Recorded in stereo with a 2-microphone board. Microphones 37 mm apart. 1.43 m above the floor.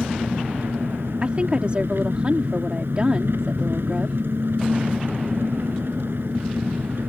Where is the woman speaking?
30° right (ahead or behind).